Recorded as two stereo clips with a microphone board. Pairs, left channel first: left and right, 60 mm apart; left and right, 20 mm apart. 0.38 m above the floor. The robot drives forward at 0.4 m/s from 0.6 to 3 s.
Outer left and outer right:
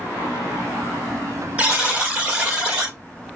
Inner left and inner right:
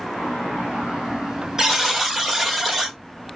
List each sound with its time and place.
1.6 s a buzzer: 20° right (ahead or behind), 1.4 m; by 3.0 s 15° right (ahead or behind), 1.6 m